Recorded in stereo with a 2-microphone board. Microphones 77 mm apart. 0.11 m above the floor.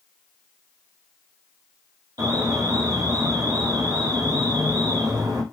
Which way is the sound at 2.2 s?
60° right (ahead or behind).